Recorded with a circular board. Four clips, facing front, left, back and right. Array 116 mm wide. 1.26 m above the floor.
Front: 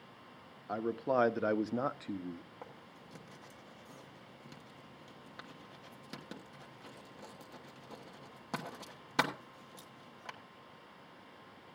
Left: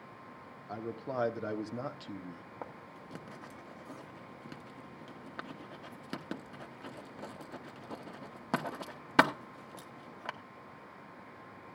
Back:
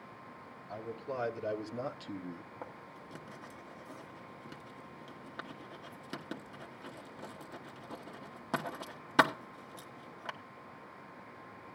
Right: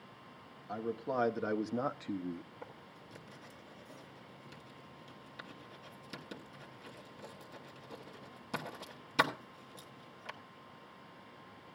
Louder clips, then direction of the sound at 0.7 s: Right 2 dB, front 8 dB; 5° left.